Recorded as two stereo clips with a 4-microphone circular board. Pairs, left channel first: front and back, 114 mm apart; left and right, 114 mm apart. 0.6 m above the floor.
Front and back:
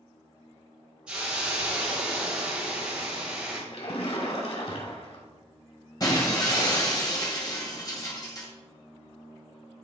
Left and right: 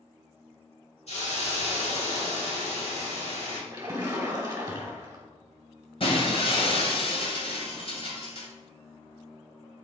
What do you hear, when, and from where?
1.1 s a hiss: 100° left, 3.5 m
3.7 s a splash: 25° right, 1.9 m
6.0 s breaking glass: 55° left, 2.0 m